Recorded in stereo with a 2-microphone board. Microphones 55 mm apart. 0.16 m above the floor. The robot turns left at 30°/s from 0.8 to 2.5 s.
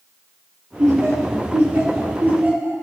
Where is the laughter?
70° right (ahead or behind), 3.5 m; by 2.7 s 30° right (ahead or behind), 3.5 m.